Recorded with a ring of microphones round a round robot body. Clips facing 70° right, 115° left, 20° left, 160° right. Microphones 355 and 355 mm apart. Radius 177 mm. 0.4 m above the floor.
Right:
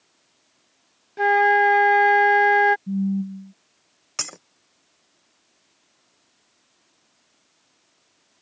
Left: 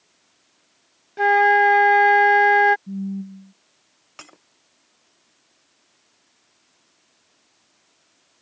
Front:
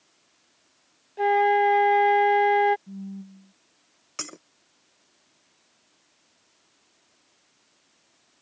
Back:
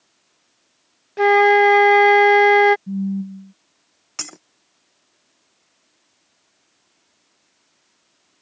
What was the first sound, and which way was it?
A flute, 160° right.